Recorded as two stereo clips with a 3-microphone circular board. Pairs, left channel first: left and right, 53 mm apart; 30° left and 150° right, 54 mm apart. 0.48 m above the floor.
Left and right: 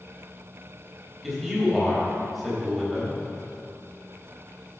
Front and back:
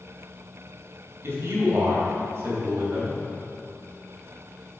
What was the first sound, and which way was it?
A man speaking, straight behind.